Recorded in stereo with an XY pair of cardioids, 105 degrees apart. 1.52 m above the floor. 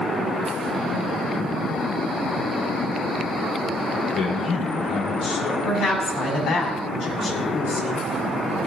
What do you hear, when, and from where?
4.1 s a man speaking: 70° left, 2.5 m
5.6 s a woman speaking: 70° left, 4 m